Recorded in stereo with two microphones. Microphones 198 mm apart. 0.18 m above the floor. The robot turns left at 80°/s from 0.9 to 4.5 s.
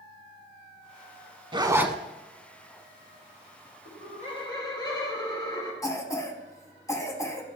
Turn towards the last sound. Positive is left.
turn(degrees=15)  # may be behind; listen again after turning